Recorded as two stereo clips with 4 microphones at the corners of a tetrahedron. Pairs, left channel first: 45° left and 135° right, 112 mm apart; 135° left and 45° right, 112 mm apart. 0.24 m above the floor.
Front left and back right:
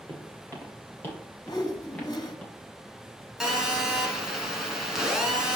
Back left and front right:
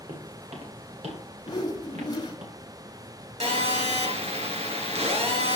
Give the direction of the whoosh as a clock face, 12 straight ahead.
9 o'clock.